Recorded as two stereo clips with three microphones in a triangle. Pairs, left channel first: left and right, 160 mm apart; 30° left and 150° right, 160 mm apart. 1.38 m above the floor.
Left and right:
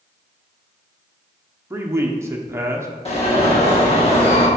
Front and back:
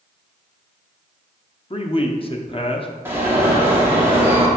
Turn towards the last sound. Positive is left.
turn(degrees=135)